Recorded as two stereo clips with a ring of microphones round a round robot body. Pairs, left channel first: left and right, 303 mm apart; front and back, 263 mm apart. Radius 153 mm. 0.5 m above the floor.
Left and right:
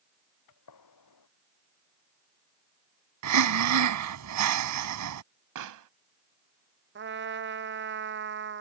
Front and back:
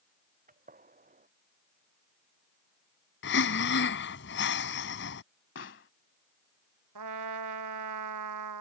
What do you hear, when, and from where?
0.5 s a gunshot: 120° left
3.2 s breathing: 55° right
5.5 s a pop: 55° right
7.0 s a trumpet: 145° right